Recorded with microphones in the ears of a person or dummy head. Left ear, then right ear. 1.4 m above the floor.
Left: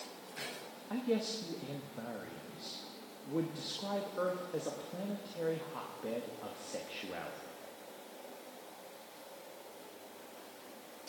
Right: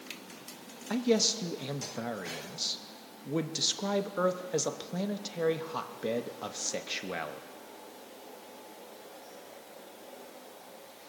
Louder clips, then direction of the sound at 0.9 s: Right 8 dB; 70° right (ahead or behind).